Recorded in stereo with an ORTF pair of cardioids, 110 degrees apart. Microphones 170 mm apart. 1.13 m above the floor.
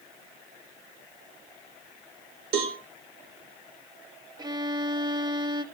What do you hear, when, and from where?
2.5 s a cowbell: 60° right, 2.5 m
4.4 s a violin: 25° right, 1.2 m